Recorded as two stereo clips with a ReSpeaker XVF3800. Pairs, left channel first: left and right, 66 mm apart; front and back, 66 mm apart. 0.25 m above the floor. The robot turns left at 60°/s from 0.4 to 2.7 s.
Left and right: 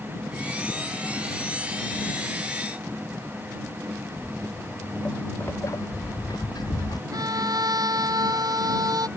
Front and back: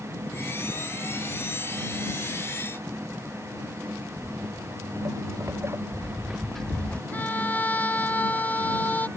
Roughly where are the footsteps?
Behind.